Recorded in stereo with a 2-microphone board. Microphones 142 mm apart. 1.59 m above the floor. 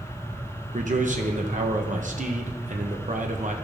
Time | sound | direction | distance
0.7 | a man speaking | 65° right (ahead or behind) | 0.9 m